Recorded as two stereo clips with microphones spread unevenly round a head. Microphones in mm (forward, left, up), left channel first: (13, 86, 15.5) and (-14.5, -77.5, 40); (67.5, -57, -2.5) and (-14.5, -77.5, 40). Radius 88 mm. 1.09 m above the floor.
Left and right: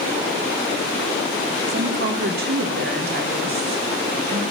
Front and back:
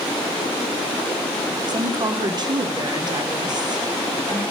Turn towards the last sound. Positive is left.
turn(degrees=-115)